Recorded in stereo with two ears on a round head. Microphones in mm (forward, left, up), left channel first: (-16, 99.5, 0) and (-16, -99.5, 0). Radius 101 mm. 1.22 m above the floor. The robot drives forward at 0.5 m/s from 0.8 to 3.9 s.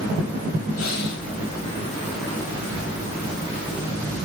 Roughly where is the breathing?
Left.